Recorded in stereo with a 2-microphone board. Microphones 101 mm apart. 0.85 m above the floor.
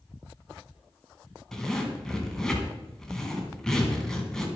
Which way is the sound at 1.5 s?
5° left (ahead or behind).